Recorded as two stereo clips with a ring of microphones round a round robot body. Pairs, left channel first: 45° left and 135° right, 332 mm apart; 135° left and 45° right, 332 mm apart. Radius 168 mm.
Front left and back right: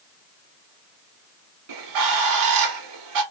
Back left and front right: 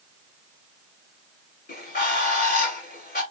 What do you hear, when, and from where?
1.7 s a bird: 160° right, 1.2 m